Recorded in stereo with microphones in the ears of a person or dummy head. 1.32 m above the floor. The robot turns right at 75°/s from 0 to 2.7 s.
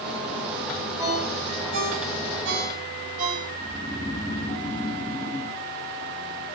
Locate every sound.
1.0 s a ringtone: 15° right (ahead or behind), 5.5 m; by 3.5 s 40° right (ahead or behind), 5.5 m
3.6 s snoring: 15° left (ahead or behind), 4 m